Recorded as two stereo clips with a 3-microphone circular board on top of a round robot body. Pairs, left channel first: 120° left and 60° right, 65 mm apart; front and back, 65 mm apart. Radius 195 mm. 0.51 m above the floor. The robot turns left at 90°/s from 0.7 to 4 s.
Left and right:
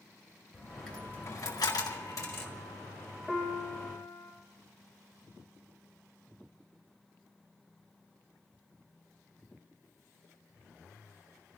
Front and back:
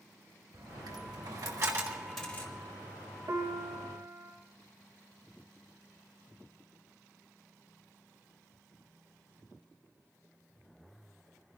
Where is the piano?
165° right, 3.5 m; by 4.3 s 130° left, 3.5 m.